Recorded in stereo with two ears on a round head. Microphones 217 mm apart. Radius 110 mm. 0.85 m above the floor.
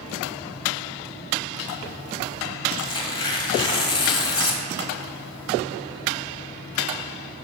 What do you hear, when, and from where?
2.8 s tearing paper: 20° left (ahead or behind), 1.3 m